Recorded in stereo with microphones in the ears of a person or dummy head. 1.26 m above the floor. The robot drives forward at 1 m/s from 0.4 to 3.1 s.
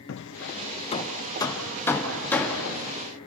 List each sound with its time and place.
0.1 s hammering: 60° left (ahead or behind), 0.6 m; by 2.6 s 10° left (ahead or behind), 2.5 m